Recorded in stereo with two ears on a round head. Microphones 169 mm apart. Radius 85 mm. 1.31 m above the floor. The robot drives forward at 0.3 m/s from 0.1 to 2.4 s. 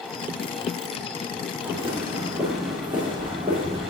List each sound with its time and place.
1.6 s footsteps: 15° right (ahead or behind), 4 m; by 3.9 s 35° right (ahead or behind), 4 m